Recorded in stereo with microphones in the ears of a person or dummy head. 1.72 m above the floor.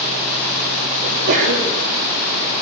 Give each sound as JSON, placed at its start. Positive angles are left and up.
{"t": 1.0, "sound": "a sneeze", "side_deg": -65, "distance_m": 5.0}